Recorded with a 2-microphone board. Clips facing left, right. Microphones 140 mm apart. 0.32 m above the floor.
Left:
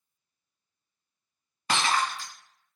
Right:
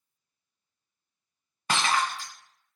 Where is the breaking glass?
45° right (ahead or behind), 1.2 m.